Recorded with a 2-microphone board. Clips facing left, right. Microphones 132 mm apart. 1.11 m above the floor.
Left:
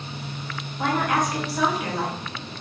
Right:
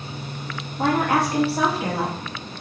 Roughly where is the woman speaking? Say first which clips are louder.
Right 3 dB; right.